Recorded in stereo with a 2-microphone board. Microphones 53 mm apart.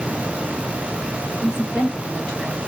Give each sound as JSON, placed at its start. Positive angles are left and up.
{"t": 1.4, "sound": "a woman speaking", "side_deg": -30, "distance_m": 2.0}